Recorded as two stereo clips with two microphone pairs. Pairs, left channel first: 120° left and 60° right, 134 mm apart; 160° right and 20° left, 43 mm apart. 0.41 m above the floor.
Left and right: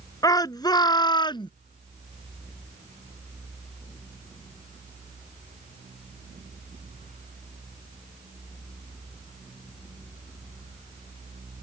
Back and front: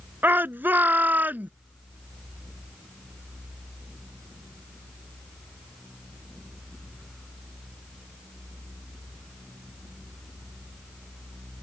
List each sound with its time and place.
0.2 s a shout: 60° left; by 1.5 s 65° left